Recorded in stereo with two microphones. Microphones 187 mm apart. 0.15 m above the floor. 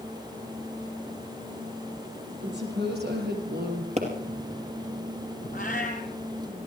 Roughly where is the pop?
Right.